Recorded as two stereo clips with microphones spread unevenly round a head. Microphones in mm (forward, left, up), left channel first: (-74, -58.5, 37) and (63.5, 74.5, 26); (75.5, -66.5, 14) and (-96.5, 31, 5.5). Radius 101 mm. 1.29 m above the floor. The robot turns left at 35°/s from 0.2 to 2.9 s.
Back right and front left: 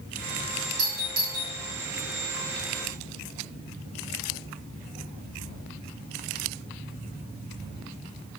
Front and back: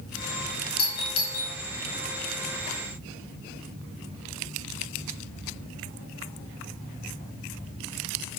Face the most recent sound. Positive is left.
turn(degrees=-60)